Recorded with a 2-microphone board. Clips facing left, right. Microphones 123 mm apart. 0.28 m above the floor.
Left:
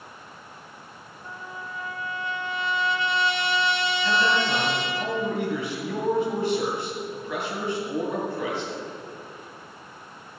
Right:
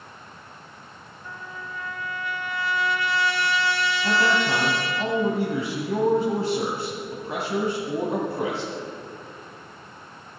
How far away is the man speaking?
About 1.7 m.